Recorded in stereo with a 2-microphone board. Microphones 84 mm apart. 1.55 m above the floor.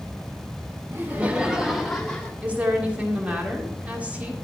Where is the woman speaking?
20° right (ahead or behind), 1.8 m.